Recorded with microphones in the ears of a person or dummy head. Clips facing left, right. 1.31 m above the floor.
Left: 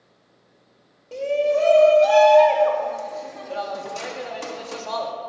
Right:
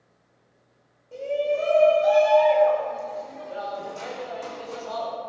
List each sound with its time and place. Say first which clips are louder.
1.1 s a shout: left 4 dB; 80° left, 3 m